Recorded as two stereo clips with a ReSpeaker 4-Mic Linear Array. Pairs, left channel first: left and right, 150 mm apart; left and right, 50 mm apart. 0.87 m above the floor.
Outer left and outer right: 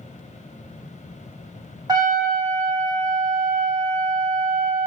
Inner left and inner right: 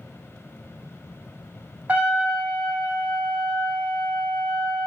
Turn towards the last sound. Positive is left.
turn(degrees=-30)  # may be behind; listen again after turning